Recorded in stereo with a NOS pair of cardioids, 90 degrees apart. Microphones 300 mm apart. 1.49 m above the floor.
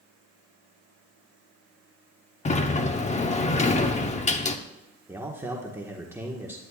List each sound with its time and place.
2.5 s a sliding door: 25° left, 1.0 m
5.1 s a man speaking: 5° right, 1.5 m